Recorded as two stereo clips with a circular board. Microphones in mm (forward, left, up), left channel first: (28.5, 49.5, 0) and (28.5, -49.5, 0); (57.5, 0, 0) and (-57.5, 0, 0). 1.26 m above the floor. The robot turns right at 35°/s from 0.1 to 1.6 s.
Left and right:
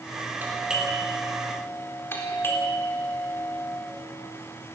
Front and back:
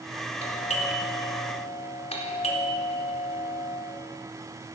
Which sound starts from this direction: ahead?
A doorbell, at 0.4 s.